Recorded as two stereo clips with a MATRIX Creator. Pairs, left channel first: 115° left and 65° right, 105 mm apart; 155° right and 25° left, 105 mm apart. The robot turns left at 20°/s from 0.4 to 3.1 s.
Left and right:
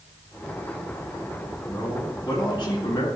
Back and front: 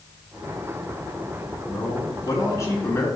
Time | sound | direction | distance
1.7 | a man speaking | 165° left | 3 m